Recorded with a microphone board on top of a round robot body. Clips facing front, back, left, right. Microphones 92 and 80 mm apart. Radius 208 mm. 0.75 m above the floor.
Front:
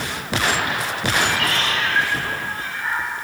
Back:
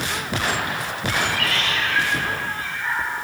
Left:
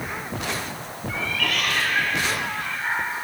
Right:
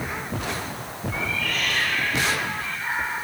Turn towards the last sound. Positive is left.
turn(degrees=50)